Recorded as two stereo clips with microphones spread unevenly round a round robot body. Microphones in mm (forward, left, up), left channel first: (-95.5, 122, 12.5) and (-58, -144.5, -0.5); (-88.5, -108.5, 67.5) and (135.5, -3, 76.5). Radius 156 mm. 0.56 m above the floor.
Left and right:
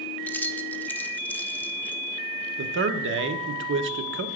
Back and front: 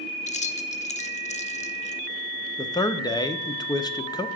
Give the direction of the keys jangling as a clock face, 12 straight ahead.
6 o'clock.